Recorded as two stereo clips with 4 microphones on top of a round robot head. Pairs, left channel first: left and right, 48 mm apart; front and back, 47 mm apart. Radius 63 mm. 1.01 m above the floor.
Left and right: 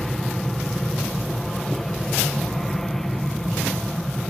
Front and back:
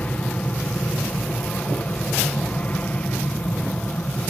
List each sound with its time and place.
0.0 s an aircraft: 10° left